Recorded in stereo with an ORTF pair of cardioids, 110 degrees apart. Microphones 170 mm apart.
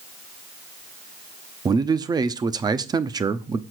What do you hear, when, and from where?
1.6 s a man speaking: 25° right, 0.7 m